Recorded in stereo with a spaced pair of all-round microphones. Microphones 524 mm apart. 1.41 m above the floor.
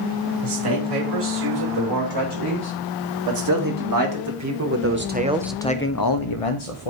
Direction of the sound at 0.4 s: 45° right (ahead or behind).